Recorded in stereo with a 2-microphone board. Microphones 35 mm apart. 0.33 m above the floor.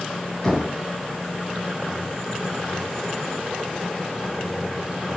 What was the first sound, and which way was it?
Knocking, 15° left (ahead or behind).